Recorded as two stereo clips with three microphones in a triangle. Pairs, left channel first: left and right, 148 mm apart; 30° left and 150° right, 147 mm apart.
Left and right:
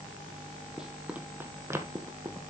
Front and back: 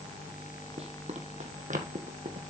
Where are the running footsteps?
175° right, 1.7 m; by 2.4 s 150° right, 2.5 m.